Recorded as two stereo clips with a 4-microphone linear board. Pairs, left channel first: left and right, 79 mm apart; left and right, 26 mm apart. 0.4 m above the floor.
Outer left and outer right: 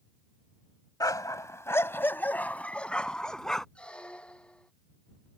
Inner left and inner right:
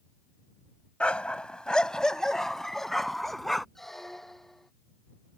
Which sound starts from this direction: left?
A dog barking, at 1.0 s.